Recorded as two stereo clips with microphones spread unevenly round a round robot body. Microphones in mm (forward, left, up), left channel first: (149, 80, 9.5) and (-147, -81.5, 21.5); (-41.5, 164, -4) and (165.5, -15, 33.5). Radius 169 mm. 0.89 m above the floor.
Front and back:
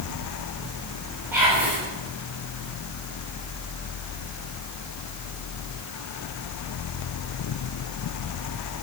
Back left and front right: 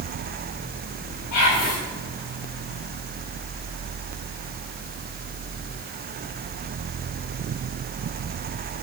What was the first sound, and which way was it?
Whispering, 125° left.